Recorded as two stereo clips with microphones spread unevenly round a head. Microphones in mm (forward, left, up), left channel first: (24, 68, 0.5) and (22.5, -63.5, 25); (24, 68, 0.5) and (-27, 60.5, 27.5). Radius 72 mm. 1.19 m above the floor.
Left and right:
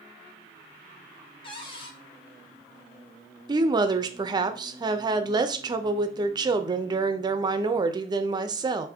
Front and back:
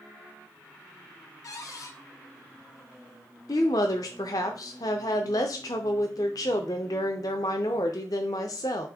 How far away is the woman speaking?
About 0.6 m.